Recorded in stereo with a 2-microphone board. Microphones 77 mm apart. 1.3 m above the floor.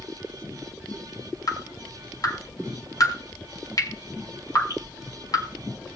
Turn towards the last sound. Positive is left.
turn(degrees=45)  # may be behind; listen again after turning